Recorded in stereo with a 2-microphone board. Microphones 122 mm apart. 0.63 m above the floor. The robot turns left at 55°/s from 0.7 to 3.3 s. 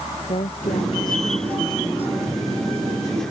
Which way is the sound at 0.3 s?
60° left.